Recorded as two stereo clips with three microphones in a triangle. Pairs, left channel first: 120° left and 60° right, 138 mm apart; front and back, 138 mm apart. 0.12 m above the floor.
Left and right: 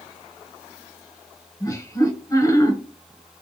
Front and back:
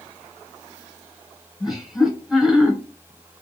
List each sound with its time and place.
1.6 s laughter: 95° left, 1.3 m